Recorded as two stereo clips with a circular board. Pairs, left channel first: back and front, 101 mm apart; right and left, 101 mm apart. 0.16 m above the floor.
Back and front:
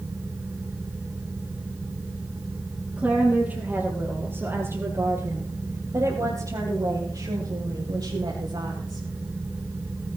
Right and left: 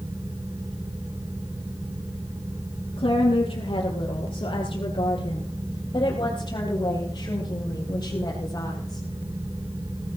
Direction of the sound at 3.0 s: 75° right.